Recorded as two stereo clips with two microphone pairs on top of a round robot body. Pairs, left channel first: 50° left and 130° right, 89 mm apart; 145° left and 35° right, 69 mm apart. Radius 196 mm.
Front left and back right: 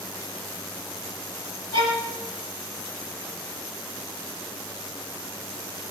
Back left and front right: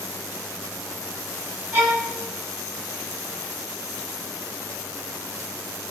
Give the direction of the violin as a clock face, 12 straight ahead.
12 o'clock.